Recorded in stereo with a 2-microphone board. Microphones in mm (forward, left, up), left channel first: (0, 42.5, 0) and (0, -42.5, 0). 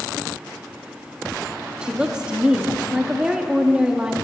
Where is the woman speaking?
10° right (ahead or behind), 1.2 m.